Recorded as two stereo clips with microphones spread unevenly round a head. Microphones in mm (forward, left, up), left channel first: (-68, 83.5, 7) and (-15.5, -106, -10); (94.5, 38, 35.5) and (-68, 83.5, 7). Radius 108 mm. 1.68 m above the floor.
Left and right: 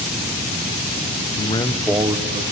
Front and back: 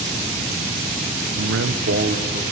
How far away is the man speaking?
About 1.1 m.